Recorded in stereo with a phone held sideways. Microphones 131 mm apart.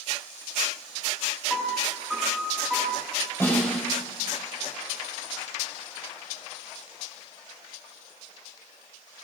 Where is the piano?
5° left (ahead or behind), 6.5 m.